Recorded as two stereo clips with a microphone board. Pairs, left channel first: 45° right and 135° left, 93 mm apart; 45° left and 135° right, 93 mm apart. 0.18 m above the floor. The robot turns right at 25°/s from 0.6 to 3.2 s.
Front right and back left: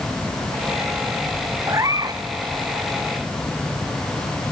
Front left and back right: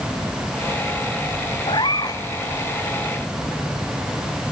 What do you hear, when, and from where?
1.7 s a cat meowing: 75° left, 1.2 m; by 2.2 s 90° left, 1.2 m